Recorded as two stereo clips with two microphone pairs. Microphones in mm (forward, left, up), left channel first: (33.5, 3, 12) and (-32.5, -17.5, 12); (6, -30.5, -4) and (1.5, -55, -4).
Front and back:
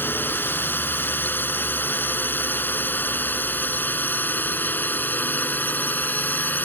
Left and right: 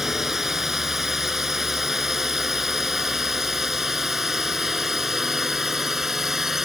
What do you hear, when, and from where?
0.0 s a drone: 30° right; by 6.7 s 35° right